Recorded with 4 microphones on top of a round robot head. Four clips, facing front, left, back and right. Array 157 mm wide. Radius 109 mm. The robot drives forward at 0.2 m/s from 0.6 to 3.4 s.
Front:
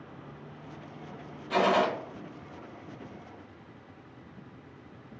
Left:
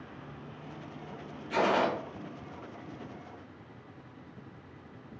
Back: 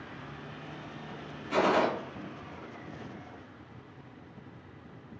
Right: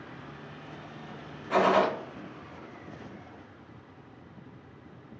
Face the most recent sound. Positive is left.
turn(degrees=-115)